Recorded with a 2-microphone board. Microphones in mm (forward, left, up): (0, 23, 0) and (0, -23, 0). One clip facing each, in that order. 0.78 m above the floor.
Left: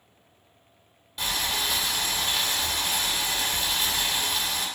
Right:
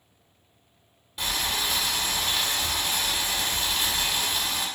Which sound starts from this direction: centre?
Boiling, at 1.2 s.